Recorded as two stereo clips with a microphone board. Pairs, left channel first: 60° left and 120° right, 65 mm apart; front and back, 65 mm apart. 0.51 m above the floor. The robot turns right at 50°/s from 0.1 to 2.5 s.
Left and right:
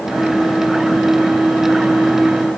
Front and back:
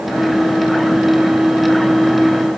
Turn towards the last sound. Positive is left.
No sound to turn to.